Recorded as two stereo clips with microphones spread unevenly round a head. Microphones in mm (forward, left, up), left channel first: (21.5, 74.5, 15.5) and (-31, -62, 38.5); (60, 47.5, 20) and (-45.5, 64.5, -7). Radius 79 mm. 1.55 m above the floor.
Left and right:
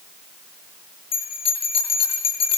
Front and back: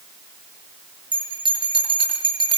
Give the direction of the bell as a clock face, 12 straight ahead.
8 o'clock.